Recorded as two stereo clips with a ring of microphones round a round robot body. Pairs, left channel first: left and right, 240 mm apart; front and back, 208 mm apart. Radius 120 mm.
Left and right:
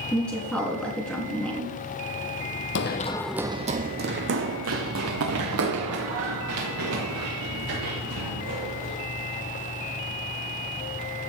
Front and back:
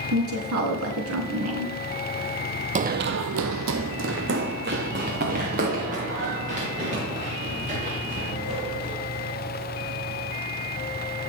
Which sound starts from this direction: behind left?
Running footsteps, at 2.8 s.